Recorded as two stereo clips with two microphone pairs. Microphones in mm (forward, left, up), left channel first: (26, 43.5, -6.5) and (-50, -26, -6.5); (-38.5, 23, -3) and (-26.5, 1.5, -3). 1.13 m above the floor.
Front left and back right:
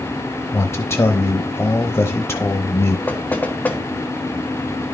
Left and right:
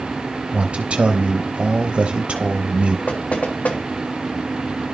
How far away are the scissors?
I don't hear scissors.